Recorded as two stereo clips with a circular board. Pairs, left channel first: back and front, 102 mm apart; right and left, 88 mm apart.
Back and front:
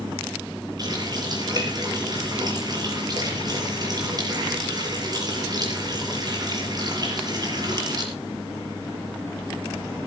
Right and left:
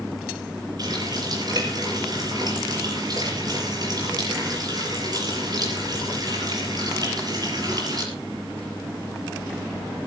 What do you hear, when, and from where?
0.8 s a running tap: 50° left, 6 m